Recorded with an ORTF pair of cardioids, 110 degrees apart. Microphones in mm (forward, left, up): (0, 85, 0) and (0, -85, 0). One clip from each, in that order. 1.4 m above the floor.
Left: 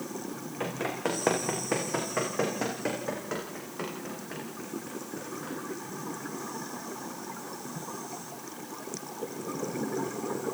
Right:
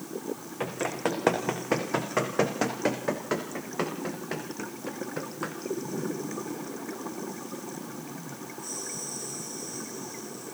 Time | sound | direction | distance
0.6 | running footsteps | 15° right | 6 m